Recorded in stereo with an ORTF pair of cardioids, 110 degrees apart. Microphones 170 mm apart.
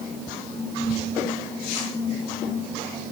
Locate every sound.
Only background noise.